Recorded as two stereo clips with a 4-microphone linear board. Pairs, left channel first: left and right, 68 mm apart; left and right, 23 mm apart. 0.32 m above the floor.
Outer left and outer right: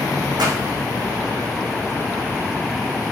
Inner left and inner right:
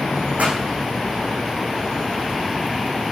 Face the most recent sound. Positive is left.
turn(degrees=-75)  # may be behind; listen again after turning